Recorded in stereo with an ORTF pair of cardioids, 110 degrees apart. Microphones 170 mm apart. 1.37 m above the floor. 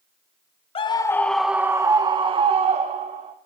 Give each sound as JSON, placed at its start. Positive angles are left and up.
{"t": 0.8, "sound": "a scream", "azimuth_deg": 35, "distance_m": 0.8}